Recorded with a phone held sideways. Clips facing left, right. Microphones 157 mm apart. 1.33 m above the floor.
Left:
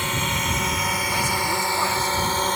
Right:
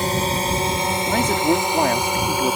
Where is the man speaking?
70° right (ahead or behind).